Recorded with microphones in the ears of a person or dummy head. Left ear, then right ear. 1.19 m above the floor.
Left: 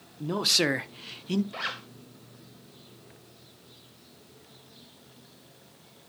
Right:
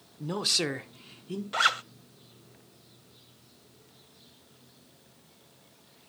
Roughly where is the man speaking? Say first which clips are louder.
Left 3 dB; right.